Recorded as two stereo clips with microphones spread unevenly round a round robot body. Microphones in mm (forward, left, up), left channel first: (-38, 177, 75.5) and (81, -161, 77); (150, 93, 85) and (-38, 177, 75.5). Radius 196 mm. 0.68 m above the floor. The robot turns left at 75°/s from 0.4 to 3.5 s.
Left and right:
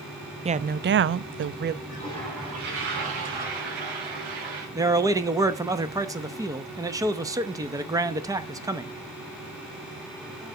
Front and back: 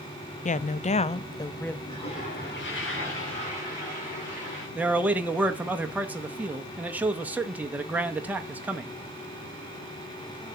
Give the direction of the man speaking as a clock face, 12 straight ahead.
5 o'clock.